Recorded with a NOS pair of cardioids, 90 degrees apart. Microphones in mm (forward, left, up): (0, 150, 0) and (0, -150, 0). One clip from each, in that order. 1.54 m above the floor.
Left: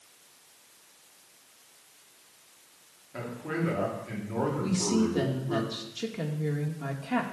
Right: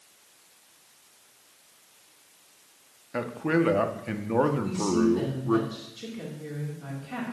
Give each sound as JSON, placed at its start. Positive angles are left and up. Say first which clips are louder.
{"t": 3.1, "sound": "a man speaking", "louder": "right 8 dB", "azimuth_deg": -60, "distance_m": 1.3}
{"t": 4.6, "sound": "a woman speaking", "louder": "right 3 dB", "azimuth_deg": 45, "distance_m": 2.0}